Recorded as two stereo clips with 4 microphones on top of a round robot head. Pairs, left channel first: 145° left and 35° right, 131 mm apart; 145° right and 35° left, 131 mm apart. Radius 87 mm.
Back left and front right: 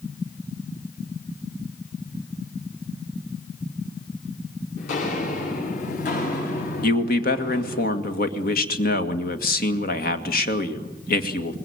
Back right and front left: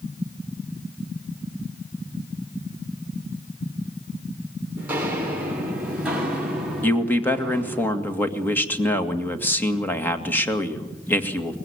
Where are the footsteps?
115° left, 7 m; by 7.8 s 130° left, 8 m.